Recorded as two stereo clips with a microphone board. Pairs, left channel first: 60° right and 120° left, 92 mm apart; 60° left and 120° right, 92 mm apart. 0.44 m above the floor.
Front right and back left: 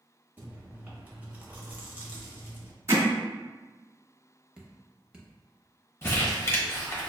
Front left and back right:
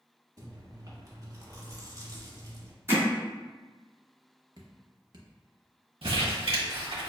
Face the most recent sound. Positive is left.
turn(degrees=-120)